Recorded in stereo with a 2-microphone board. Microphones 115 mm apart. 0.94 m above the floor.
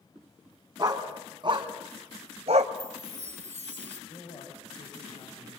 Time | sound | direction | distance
0.8 | a dog barking | 35° right (ahead or behind) | 3 m
2.8 | a chime | 80° right | 3 m
4.1 | a man speaking | 50° left (ahead or behind) | 5 m